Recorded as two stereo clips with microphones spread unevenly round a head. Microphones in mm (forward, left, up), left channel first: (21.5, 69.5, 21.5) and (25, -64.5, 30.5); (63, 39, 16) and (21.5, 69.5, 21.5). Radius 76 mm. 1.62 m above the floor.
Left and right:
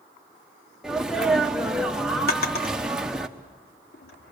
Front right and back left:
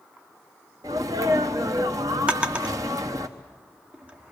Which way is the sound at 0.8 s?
175° right.